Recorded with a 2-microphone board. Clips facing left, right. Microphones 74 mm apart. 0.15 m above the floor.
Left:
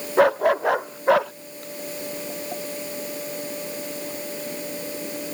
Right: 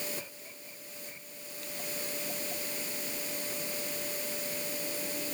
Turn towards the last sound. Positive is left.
turn(degrees=75)  # may be behind; listen again after turning